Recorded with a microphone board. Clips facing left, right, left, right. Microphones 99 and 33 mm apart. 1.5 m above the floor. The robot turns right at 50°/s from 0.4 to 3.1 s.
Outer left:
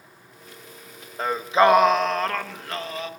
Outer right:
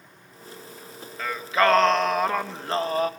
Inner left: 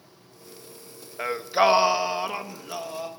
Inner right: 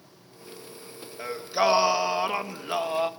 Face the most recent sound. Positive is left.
turn(degrees=-130)